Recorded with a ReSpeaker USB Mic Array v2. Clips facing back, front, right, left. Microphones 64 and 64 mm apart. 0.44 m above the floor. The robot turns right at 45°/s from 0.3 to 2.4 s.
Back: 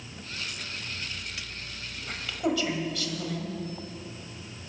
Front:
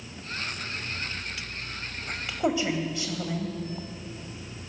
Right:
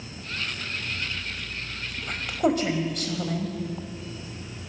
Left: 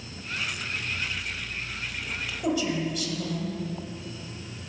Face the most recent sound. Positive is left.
turn(degrees=-65)